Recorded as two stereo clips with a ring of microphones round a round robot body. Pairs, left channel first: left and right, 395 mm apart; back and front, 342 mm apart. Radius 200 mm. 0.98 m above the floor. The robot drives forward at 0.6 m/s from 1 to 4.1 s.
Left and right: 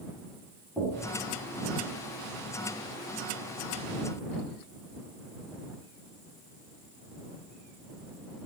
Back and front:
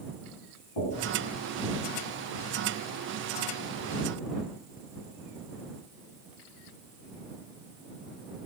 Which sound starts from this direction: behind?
Knocking, at 0.8 s.